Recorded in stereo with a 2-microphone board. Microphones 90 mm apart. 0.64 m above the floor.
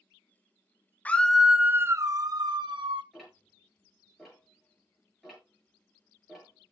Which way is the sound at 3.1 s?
Centre (ahead or behind).